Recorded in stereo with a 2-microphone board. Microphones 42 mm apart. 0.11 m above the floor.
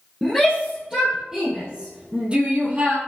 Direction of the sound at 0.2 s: 5° right (ahead or behind).